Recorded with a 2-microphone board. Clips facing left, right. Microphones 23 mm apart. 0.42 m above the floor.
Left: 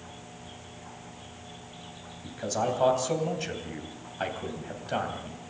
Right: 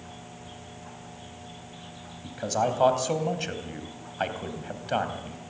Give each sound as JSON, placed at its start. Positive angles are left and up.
{"t": 2.2, "sound": "a man speaking", "side_deg": -20, "distance_m": 3.0}